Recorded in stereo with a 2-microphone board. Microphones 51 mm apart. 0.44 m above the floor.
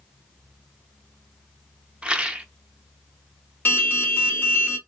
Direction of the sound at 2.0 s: 20° right (ahead or behind).